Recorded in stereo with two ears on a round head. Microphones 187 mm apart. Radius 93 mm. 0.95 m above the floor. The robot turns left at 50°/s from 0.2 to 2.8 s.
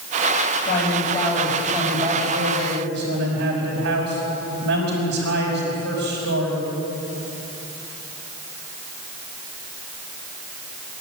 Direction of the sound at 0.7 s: 35° left.